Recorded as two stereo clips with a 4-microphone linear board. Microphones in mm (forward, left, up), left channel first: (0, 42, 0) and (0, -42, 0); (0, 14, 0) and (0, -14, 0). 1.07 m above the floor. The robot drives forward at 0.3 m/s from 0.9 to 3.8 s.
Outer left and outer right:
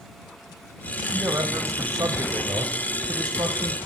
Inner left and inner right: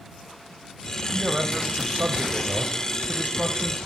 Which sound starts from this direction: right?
A man speaking, at 1.1 s.